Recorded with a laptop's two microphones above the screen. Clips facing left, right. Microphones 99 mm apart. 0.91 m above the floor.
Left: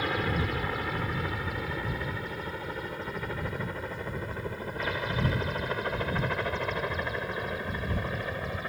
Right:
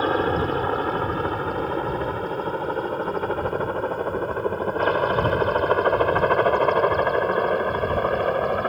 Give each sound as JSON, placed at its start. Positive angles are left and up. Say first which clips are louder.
{"t": 0.0, "sound": "a helicopter", "louder": "right 9 dB", "side_deg": -40}